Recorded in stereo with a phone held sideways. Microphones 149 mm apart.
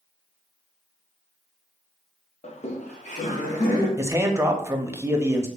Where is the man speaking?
15° right (ahead or behind), 0.5 m.